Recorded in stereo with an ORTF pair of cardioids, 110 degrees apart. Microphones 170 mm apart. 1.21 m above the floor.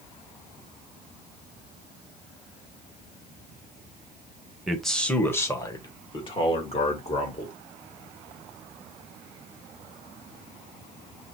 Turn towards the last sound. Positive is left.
turn(degrees=40)